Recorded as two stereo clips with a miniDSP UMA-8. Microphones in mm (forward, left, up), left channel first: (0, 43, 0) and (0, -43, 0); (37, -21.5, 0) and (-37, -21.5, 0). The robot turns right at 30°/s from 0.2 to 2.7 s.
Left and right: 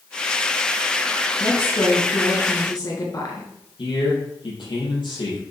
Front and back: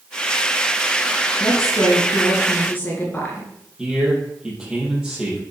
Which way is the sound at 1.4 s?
20° left.